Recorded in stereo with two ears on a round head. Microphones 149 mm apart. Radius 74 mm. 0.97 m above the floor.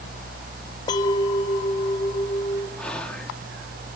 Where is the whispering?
5° left (ahead or behind), 1.7 m.